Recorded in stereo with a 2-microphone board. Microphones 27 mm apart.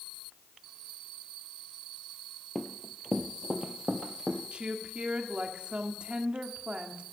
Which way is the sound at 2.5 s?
15° right (ahead or behind).